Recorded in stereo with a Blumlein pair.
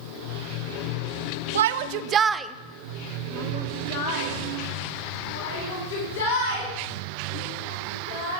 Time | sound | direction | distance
1.6 | a shout | 65° right | 0.7 m